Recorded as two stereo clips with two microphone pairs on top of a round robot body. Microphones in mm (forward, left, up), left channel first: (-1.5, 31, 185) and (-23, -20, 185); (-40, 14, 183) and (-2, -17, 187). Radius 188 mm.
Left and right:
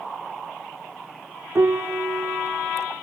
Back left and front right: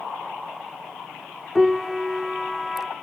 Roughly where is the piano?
Behind right.